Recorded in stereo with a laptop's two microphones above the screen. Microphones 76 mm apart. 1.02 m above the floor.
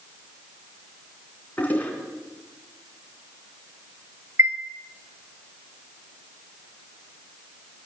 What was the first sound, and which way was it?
A toilet flushing, 20° left (ahead or behind).